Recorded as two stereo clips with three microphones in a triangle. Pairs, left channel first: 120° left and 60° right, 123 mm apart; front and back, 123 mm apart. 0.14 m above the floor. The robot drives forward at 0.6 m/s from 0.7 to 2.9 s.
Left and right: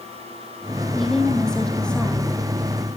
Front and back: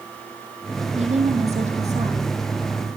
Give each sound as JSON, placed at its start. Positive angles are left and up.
{"t": 0.9, "sound": "a woman speaking", "azimuth_deg": -155, "distance_m": 4.5}